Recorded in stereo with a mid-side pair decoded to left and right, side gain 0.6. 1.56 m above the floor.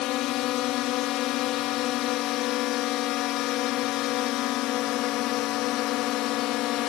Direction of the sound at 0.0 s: 70° left.